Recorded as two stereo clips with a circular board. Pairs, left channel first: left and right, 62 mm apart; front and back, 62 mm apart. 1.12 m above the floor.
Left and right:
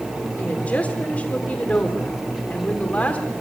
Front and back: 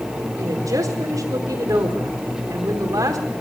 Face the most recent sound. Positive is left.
turn(degrees=155)